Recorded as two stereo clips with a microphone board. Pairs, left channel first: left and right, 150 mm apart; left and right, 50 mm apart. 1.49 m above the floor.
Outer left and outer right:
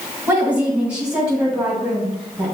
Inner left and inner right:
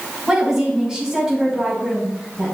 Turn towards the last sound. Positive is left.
turn(degrees=0)  # may be behind; listen again after turning